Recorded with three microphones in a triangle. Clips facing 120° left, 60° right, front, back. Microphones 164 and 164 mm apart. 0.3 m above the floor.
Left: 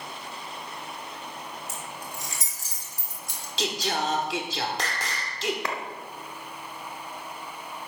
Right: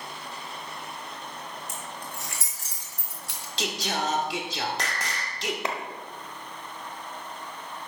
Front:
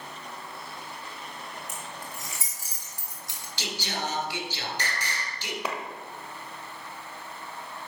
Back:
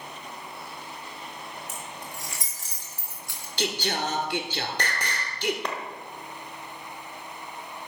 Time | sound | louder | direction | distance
1.7 | keys jangling | even, back 1 dB | 90° right | 4.5 m
3.6 | singing | left 1 dB, back 5 dB | 150° right | 1.3 m
5.7 | a clap | right 1 dB, even | 75° right | 1.2 m